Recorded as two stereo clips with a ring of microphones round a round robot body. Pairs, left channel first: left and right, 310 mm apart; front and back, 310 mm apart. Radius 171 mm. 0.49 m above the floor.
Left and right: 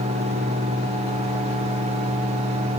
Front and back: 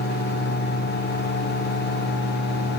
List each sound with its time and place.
Only background noise.